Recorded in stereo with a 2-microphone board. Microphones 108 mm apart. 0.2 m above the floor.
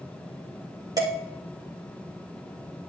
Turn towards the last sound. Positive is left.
turn(degrees=-35)  # may be behind; listen again after turning